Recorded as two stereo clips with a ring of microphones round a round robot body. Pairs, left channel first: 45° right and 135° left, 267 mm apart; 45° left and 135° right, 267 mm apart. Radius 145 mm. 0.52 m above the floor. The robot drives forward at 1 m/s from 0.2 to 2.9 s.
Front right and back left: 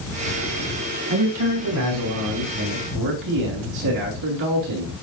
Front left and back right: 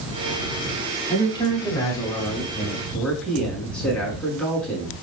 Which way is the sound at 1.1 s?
115° left.